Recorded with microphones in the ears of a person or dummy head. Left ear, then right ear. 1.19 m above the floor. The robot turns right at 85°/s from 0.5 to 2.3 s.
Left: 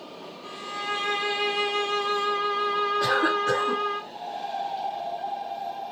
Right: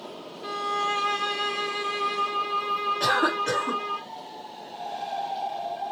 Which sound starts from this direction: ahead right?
A violin, at 0.4 s.